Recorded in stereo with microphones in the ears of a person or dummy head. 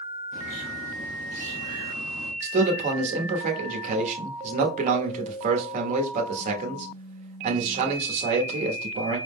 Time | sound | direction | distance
0.3 | a bird | 50° left (ahead or behind) | 2.5 m
2.4 | a man speaking | 40° right (ahead or behind) | 0.9 m